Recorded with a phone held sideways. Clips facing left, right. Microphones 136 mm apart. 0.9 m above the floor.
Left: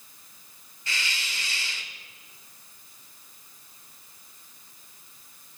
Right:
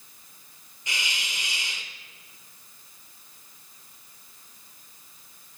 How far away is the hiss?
About 0.8 m.